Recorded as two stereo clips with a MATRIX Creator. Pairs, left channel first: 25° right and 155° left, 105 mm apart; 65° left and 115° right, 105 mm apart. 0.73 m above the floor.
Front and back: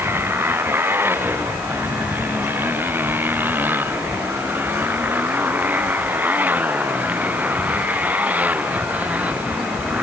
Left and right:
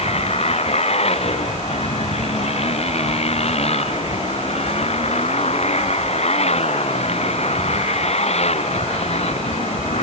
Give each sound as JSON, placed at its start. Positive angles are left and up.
{"t": 0.0, "sound": "a motorcycle", "azimuth_deg": 85}